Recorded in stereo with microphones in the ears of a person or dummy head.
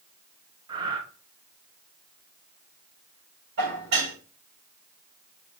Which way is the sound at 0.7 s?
30° right (ahead or behind).